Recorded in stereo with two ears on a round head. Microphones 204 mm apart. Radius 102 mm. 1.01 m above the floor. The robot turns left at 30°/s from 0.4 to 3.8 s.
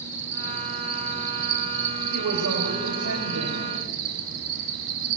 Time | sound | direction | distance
0.0 | an insect | 35° right | 4 m
2.1 | a woman speaking | 80° right | 3.5 m